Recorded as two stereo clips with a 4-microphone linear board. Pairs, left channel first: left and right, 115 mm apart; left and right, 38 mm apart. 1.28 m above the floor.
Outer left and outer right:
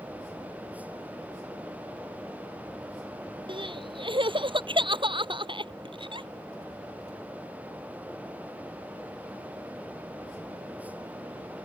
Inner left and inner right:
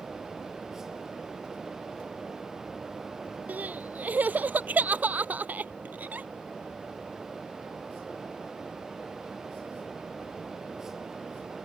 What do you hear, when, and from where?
3.5 s crying: 45° right (ahead or behind)